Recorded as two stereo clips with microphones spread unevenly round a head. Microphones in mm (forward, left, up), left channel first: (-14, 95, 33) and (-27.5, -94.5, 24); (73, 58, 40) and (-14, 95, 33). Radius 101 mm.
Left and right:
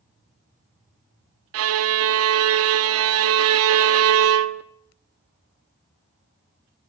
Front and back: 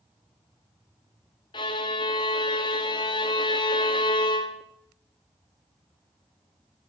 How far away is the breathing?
I don't hear breathing.